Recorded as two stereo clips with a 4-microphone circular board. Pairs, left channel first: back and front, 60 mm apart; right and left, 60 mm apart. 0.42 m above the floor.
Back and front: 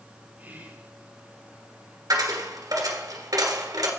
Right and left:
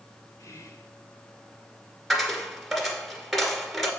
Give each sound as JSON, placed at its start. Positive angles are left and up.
{"t": 0.4, "sound": "whispering", "azimuth_deg": -60, "distance_m": 4.0}
{"t": 2.1, "sound": "a dropped coin", "azimuth_deg": 0, "distance_m": 2.0}